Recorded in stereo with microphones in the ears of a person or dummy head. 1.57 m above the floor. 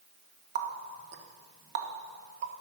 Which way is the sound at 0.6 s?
60° right (ahead or behind).